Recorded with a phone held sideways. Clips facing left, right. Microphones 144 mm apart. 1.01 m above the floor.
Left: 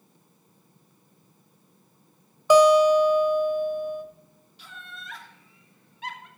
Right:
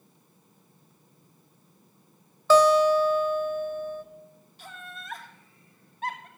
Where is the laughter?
45° right (ahead or behind), 2.5 m.